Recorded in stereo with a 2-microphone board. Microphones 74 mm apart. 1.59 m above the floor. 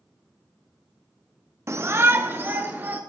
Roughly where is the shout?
Right.